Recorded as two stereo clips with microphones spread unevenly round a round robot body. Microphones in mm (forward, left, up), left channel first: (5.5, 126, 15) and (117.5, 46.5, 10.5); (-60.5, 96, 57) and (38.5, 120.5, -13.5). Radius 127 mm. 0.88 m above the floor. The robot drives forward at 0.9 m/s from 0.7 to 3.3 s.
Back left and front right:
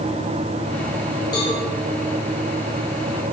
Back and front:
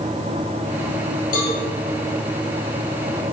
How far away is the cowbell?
About 2 m.